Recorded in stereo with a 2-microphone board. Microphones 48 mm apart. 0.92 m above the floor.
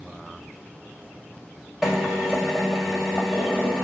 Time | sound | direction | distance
1.8 | a drill | 5° right (ahead or behind) | 2.5 m